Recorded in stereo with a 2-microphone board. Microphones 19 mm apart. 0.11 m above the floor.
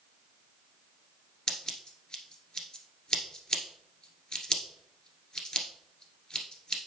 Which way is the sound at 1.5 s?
30° left (ahead or behind).